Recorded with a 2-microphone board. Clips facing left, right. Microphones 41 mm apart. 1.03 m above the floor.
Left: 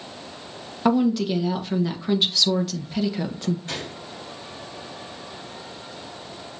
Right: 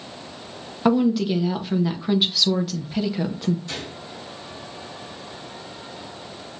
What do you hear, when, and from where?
0.8 s a woman speaking: 5° right (ahead or behind), 0.7 m
3.7 s a gunshot: 40° left (ahead or behind), 2.5 m